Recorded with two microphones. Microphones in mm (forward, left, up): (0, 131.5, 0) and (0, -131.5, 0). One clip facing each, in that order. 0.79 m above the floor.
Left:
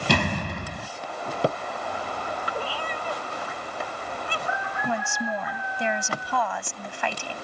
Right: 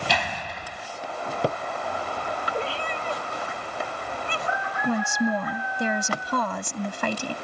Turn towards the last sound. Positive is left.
turn(degrees=-45)  # may be behind; listen again after turning